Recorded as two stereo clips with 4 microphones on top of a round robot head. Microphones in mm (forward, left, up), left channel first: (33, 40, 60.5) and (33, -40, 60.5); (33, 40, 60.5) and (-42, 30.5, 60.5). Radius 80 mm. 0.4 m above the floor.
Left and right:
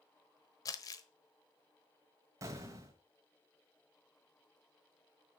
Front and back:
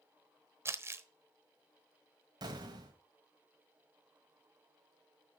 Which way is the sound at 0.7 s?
135° left.